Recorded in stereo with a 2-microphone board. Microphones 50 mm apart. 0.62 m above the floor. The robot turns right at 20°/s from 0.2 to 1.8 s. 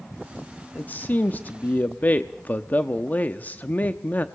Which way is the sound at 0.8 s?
35° left (ahead or behind).